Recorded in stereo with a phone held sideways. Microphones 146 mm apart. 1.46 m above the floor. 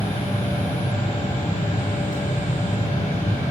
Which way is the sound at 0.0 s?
70° left (ahead or behind).